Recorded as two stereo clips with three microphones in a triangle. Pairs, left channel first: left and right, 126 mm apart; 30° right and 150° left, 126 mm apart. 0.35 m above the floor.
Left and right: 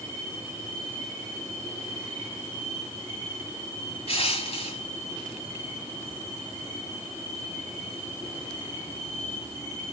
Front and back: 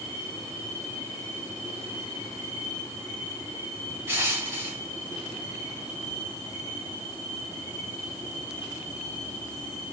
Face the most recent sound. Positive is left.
turn(degrees=85)